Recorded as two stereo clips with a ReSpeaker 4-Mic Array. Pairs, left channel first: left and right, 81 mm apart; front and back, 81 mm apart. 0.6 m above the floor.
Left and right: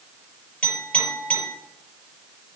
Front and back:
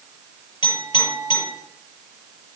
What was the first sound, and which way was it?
A clink, 15° left.